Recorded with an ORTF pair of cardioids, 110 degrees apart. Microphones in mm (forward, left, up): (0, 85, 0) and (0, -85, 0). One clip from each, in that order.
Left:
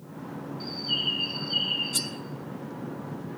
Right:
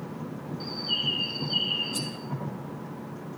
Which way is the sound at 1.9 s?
45° left.